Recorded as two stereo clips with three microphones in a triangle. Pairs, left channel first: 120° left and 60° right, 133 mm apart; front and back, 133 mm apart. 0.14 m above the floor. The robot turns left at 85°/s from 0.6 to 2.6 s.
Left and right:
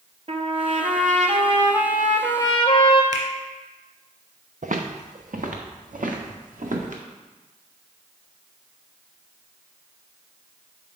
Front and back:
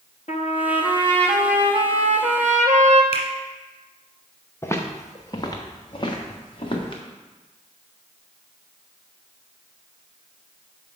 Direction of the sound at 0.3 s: 25° right.